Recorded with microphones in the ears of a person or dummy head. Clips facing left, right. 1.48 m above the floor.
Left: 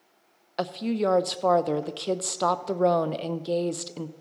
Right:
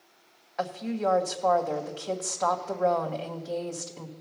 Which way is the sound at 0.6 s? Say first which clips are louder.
Left 3 dB; 40° left (ahead or behind).